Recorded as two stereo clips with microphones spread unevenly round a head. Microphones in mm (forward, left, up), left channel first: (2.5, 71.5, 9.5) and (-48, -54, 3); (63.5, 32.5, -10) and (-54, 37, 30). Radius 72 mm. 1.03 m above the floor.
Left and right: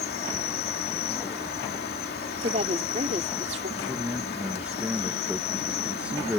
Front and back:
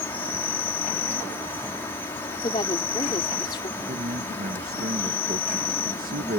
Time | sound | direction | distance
0.0 | an insect | 65° left | ?
2.4 | a woman speaking | 65° right | ?
3.8 | a man speaking | 170° left | ?